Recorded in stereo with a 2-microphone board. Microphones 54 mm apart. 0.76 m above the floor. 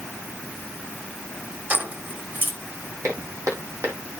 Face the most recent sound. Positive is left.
turn(degrees=-75)  # may be behind; listen again after turning